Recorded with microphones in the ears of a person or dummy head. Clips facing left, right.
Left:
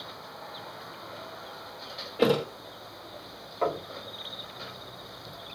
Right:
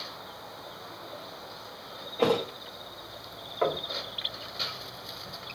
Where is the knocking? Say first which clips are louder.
Right 1 dB; 5° right (ahead or behind), 1.2 m.